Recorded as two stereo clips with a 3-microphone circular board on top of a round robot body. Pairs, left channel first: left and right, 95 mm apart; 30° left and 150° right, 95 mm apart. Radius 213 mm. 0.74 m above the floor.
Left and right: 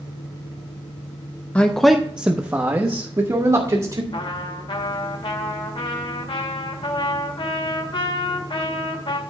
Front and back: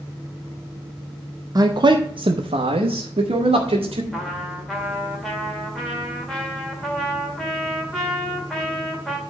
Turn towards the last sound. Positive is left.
turn(degrees=115)